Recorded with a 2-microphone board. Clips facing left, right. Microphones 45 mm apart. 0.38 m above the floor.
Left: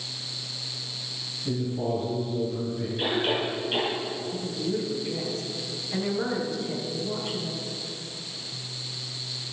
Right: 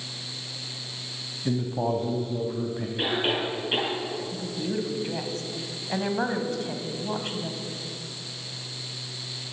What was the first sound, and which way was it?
A man speaking, 50° right (ahead or behind).